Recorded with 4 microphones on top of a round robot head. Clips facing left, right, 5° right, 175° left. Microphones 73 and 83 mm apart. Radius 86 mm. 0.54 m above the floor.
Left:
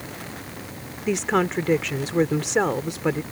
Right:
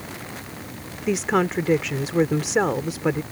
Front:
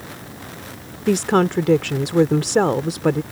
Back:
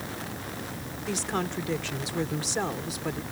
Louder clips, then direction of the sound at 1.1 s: Right 1 dB, front 14 dB; 5° right.